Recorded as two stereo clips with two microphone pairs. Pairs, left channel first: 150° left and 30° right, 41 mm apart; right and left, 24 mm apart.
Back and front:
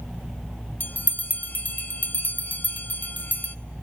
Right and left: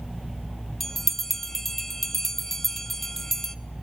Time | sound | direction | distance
0.8 | a bell | 165° right | 0.6 m